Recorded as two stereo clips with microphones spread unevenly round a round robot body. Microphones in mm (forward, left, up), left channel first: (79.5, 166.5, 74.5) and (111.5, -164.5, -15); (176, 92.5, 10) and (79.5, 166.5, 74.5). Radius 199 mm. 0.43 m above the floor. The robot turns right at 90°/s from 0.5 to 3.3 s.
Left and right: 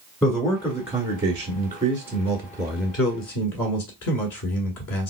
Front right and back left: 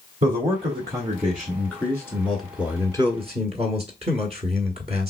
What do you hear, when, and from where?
0.2 s a man speaking: 170° right, 1.4 m; by 5.1 s 85° left, 1.4 m